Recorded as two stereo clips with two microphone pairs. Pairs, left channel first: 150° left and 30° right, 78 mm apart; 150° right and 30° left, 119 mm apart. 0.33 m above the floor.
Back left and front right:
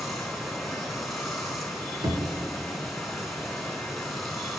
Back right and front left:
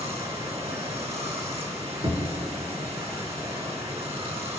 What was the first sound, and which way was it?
Running water, 60° left.